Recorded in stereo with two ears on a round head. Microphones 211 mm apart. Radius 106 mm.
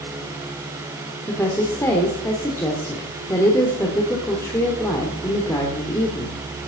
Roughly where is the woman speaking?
Centre.